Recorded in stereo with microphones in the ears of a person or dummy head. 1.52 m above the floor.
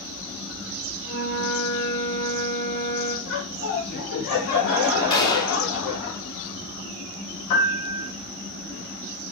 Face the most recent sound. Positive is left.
turn(degrees=55)  # may be behind; listen again after turning